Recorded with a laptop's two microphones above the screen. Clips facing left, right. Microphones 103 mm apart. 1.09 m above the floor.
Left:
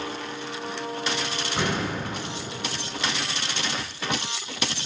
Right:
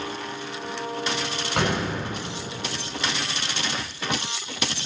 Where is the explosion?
70° right (ahead or behind), 4 m.